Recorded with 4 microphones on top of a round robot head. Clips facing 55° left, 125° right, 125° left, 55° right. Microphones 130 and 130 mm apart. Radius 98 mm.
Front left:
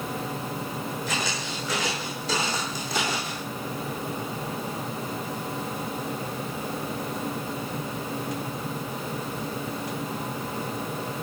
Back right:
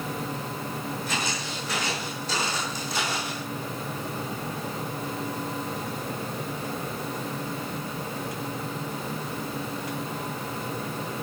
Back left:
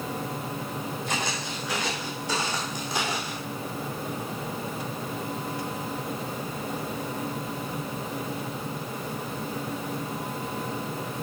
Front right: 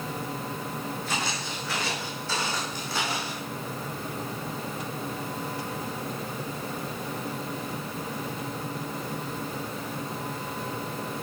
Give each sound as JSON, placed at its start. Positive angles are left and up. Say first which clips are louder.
{"t": 1.1, "sound": "footsteps", "louder": "front left 1 dB, back left 1 dB", "azimuth_deg": 50, "distance_m": 3.5}